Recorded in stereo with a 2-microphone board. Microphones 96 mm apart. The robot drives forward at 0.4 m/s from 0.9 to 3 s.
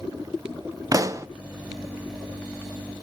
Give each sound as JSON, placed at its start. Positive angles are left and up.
{"t": 0.9, "sound": "a pop", "side_deg": -35, "distance_m": 0.6}